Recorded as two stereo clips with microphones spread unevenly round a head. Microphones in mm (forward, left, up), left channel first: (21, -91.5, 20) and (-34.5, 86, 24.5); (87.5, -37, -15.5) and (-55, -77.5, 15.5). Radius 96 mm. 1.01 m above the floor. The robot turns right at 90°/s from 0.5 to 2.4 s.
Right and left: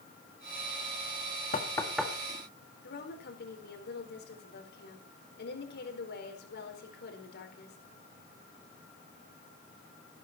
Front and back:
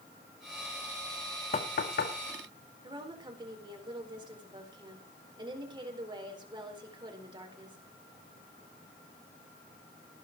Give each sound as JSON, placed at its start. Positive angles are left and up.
{"t": 1.5, "sound": "knocking", "azimuth_deg": -20, "distance_m": 1.9}
{"t": 2.8, "sound": "a woman speaking", "azimuth_deg": -105, "distance_m": 4.5}